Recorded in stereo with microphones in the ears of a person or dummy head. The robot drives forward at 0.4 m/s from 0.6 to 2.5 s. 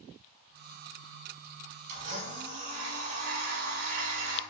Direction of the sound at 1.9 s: 60° right (ahead or behind).